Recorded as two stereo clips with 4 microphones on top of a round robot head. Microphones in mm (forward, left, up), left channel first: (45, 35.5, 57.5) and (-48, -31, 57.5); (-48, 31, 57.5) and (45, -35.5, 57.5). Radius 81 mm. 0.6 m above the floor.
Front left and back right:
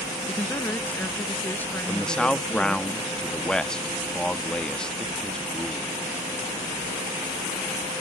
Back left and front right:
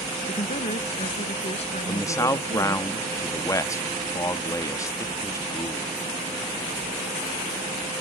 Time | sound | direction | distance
0.3 | a woman speaking | 110° left | ?
1.9 | a man speaking | 110° left | ?